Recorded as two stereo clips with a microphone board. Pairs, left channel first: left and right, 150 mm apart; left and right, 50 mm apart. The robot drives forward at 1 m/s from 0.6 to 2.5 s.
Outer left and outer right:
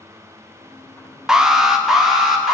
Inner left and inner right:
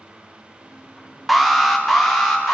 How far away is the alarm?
About 0.9 m.